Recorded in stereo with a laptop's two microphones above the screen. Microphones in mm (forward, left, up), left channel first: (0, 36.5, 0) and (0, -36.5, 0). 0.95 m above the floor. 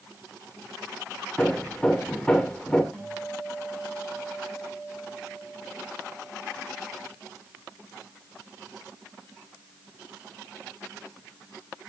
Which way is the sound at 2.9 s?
10° left (ahead or behind).